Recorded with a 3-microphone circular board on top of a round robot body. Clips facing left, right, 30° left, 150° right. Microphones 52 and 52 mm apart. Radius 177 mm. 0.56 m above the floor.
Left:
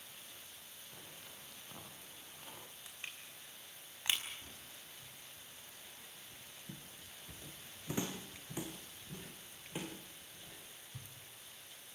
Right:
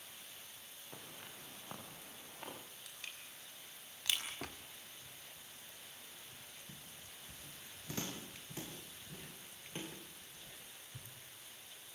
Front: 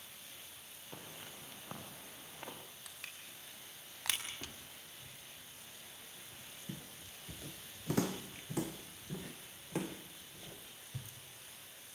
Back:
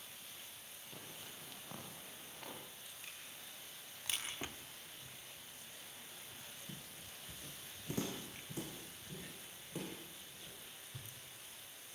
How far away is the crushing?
About 6 m.